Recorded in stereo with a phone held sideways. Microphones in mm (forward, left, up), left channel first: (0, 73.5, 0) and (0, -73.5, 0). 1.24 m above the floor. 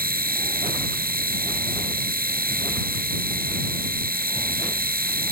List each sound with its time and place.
0.0 s a machine running: 90° right